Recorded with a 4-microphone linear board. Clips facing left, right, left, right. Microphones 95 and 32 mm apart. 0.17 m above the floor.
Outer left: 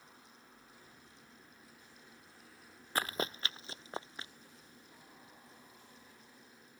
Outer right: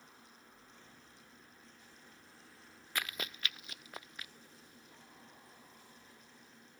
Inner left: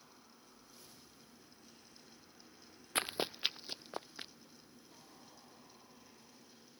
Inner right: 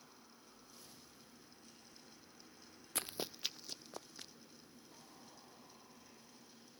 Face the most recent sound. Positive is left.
turn(degrees=30)  # may be behind; listen again after turning